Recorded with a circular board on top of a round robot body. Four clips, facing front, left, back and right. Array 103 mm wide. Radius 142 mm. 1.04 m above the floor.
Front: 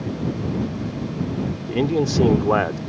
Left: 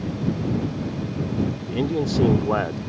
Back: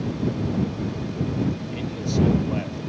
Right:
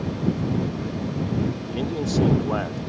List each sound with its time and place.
1.7 s a man speaking: 15° left